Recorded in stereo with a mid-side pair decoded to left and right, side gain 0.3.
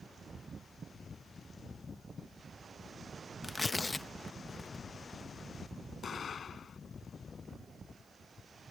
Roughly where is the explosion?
Ahead left.